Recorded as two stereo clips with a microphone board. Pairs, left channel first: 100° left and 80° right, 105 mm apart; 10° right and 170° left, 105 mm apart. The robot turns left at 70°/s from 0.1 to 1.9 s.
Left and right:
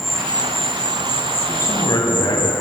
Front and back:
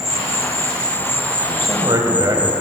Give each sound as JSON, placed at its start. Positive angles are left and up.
{"t": 0.0, "sound": "an insect", "azimuth_deg": -170, "distance_m": 0.8}
{"t": 1.5, "sound": "a man speaking", "azimuth_deg": 155, "distance_m": 2.5}